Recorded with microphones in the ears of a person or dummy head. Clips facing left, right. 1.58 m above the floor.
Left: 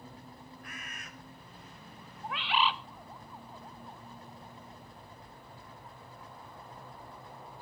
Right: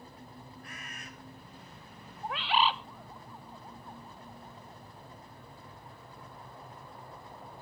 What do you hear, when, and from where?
0.6 s a bird: 30° right (ahead or behind), 4.5 m
2.2 s a bird: 35° right (ahead or behind), 0.7 m